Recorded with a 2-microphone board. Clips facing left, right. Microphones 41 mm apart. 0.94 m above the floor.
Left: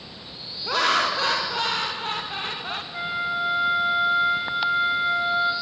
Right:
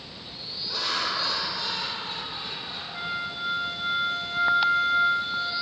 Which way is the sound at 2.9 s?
20° left (ahead or behind).